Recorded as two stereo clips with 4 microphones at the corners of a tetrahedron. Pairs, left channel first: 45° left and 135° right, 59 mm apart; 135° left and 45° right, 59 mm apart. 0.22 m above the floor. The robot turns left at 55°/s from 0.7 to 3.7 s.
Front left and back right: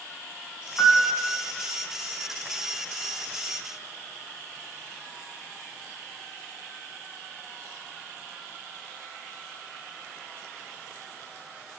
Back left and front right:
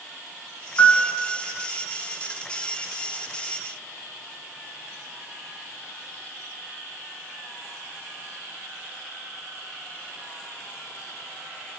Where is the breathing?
No breathing in this recording.